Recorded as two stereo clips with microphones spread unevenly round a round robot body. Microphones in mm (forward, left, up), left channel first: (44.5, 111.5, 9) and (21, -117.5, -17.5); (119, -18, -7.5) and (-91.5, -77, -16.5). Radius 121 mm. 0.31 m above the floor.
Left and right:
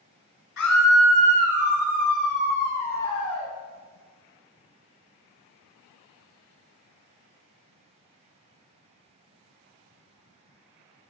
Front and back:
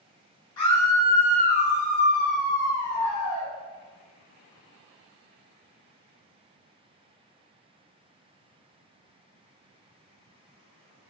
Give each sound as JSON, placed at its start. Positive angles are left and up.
{"t": 0.6, "sound": "a scream", "azimuth_deg": 85, "distance_m": 2.5}